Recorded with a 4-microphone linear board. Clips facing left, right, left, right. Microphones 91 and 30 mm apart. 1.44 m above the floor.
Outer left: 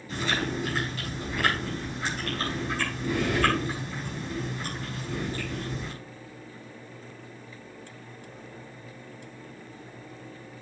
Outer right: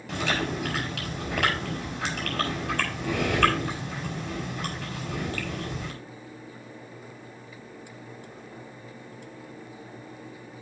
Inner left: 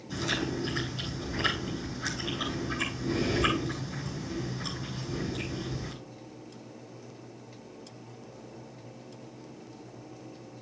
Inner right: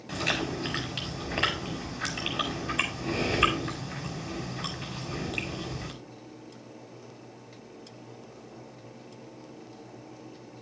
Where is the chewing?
75° right (ahead or behind), 4.5 m.